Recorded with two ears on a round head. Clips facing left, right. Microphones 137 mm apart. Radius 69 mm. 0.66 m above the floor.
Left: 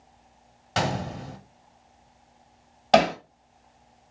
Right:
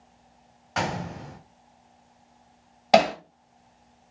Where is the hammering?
5° right (ahead or behind), 1.2 m.